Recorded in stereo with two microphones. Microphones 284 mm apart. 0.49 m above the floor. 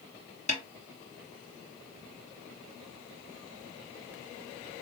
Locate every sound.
0.5 s a snare drum: 25° left (ahead or behind), 1.3 m